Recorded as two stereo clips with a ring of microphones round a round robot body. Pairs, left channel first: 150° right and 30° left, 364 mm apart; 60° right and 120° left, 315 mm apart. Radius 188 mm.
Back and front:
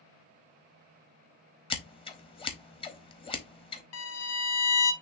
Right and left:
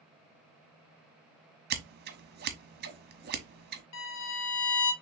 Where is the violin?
100° right, 0.9 m.